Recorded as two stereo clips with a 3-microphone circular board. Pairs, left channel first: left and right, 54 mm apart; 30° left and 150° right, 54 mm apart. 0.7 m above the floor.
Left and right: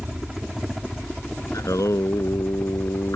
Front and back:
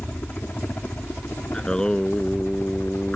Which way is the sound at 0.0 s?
15° right.